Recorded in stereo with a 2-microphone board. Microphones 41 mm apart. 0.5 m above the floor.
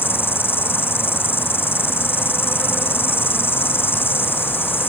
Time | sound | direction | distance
0.0 | an insect | 65° left (ahead or behind) | ?